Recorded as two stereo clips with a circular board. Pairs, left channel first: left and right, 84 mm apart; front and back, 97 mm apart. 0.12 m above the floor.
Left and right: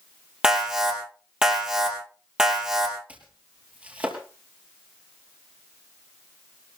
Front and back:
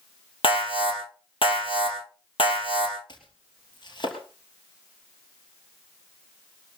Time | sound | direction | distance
0.4 | an alarm | 10° right | 4.5 m
3.1 | chopping | 20° right | 3 m